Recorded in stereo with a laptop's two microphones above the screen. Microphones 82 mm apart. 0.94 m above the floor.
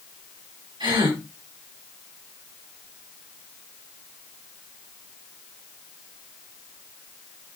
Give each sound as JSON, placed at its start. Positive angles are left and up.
{"t": 0.8, "sound": "a gasp", "side_deg": -85, "distance_m": 4.5}